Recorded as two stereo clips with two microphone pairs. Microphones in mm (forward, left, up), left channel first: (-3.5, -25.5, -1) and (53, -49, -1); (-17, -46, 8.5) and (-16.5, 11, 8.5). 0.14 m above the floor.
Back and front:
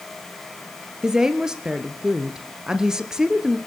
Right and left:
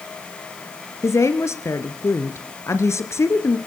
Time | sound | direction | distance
1.0 | a woman speaking | 100° right | 2 m